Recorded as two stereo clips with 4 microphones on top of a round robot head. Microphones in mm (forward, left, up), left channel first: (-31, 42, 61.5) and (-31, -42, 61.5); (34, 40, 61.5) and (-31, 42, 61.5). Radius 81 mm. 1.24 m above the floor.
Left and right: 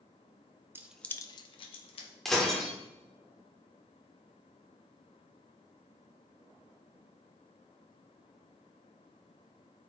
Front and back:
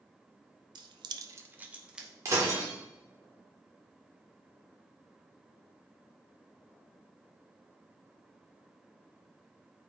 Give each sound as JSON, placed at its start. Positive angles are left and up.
{"t": 0.8, "sound": "keys jangling", "azimuth_deg": -155, "distance_m": 0.6}
{"t": 2.2, "sound": "breaking glass", "azimuth_deg": 170, "distance_m": 0.9}